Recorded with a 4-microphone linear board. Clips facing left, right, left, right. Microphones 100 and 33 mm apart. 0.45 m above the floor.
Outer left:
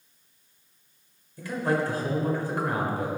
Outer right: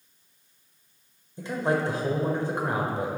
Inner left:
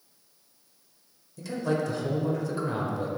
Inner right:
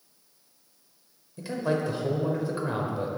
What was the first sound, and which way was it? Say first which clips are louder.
A man speaking: even, inner right 1 dB; 25° right (ahead or behind).